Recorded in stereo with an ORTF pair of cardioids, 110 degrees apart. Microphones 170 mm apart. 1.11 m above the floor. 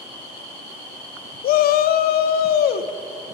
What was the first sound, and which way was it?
A shout, 60° left.